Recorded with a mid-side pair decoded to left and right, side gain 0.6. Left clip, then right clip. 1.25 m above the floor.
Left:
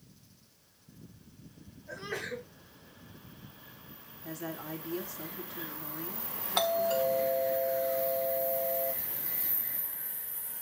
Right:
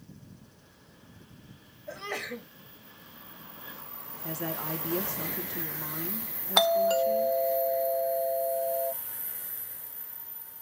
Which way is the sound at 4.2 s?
55° right.